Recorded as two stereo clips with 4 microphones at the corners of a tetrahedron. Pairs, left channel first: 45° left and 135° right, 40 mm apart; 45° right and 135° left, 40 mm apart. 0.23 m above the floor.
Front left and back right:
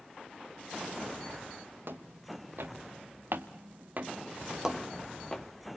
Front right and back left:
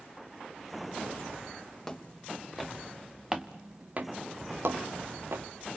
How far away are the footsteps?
About 2 m.